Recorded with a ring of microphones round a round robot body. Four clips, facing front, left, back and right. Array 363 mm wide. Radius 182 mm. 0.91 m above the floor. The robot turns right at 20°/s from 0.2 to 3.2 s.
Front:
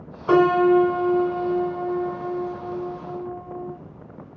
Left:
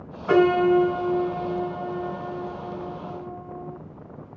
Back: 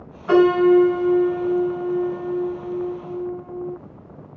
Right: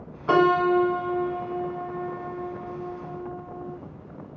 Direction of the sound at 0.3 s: 35° right.